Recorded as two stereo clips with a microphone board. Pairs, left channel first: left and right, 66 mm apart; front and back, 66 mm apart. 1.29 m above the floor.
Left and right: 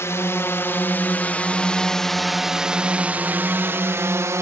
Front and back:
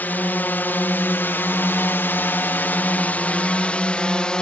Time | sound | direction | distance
0.0 | a drone | 55° left | ?